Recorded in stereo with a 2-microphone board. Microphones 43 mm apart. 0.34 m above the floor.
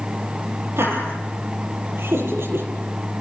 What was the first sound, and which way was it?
Laughter, 65° right (ahead or behind).